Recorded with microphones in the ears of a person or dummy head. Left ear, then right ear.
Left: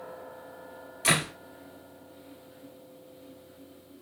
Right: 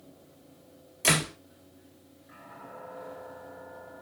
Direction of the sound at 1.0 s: 20° right (ahead or behind).